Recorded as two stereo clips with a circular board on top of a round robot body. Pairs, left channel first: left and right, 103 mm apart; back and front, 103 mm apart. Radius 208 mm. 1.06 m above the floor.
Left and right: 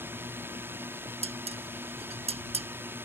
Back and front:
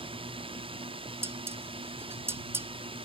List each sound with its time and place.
0.0 s a drone: 20° right
1.2 s dishes clattering: 70° right